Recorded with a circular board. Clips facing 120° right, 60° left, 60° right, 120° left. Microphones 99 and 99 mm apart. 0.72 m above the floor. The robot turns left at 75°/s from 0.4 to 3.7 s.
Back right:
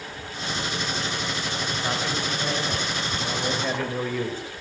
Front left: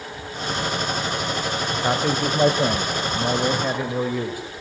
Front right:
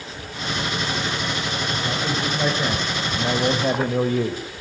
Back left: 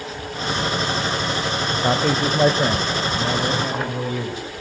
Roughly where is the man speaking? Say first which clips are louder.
Front left 8 dB, back left 8 dB; behind left.